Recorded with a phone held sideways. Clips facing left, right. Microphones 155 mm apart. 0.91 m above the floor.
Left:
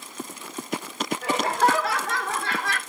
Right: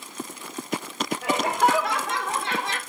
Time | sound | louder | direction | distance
1.2 | laughter | even | 20° right (ahead or behind) | 1.8 m